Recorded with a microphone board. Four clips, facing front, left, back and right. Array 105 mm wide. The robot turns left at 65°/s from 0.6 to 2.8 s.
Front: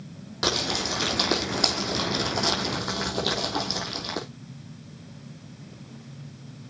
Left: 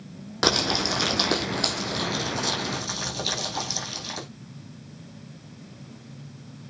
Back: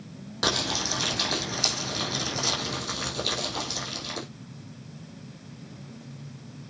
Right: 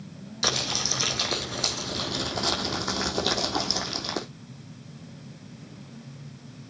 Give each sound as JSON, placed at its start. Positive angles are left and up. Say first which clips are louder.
{"t": 0.4, "sound": "crumpling", "louder": "left 7 dB, front 1 dB", "azimuth_deg": 90, "distance_m": 4.0}